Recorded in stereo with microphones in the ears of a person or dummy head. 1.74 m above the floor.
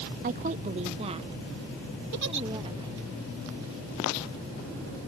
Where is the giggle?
60° right (ahead or behind).